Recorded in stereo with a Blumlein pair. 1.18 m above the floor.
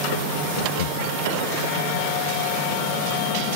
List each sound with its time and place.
0.6 s laughter: 60° left